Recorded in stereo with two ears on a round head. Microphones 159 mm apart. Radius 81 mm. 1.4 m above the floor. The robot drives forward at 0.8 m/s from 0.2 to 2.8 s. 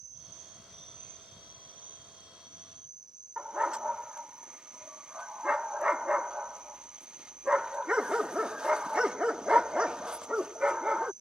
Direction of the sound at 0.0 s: 45° right (ahead or behind).